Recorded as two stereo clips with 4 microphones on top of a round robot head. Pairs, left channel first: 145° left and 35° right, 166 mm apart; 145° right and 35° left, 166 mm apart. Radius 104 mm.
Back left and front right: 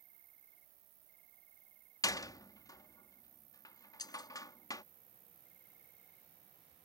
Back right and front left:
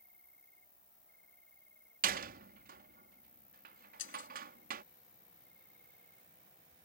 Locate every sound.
0.0 s an insect: 60° right
2.0 s a door slam: 75° left
4.0 s breaking glass: 150° right